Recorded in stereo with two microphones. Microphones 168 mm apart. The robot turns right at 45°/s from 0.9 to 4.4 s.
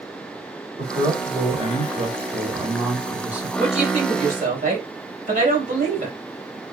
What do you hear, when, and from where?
0.8 s a man speaking: 130° right, 1.2 m; by 3.5 s 10° right, 1.2 m
3.6 s a woman speaking: 135° right, 1.9 m; by 6.2 s 95° right, 1.9 m